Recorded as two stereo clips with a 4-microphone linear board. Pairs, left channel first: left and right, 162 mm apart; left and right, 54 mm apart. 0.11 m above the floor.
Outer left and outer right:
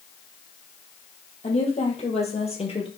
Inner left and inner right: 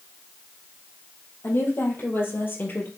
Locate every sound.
1.4 s a woman speaking: 45° left (ahead or behind), 4 m; by 2.9 s 35° left (ahead or behind), 3 m